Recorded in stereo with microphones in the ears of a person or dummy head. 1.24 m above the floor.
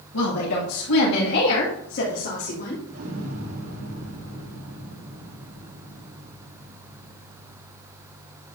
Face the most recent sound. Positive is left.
turn(degrees=-80)